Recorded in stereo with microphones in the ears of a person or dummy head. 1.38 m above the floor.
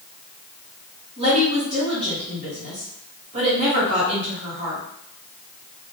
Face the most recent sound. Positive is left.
turn(degrees=-30)  # may be behind; listen again after turning